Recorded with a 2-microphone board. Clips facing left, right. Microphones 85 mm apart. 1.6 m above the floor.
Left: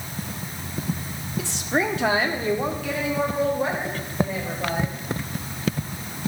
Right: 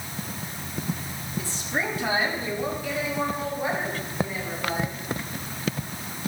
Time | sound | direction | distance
1.4 | a woman speaking | 70° left (ahead or behind) | 0.7 m